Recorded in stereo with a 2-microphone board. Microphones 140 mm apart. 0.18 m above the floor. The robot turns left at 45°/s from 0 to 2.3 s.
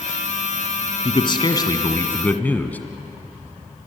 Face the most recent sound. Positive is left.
turn(degrees=20)